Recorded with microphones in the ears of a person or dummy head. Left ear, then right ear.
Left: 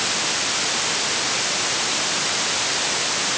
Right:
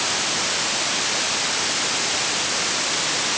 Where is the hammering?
I don't hear hammering.